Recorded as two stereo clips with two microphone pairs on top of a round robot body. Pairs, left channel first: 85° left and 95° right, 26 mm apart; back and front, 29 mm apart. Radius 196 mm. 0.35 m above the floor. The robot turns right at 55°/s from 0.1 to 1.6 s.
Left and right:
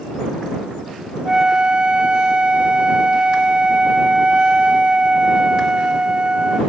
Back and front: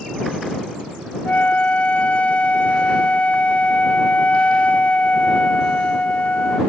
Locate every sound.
1.2 s a flute: 160° right; by 6.6 s 140° right